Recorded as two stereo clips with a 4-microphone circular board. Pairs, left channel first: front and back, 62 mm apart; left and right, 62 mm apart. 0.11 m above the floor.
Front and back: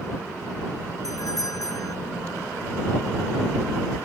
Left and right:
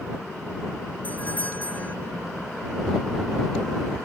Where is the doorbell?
25° left.